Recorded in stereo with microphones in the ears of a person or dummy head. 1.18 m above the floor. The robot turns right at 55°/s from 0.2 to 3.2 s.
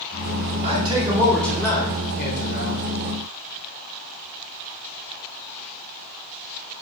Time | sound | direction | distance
0.6 | a man speaking | 35° right | 3.5 m